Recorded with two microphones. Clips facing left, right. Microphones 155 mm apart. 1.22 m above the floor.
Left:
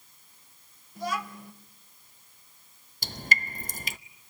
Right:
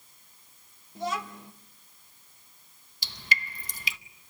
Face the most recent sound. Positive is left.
turn(degrees=45)  # may be behind; listen again after turning